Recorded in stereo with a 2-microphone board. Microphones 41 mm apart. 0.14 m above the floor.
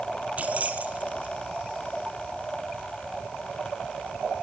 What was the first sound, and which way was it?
Keys jangling, 40° right (ahead or behind).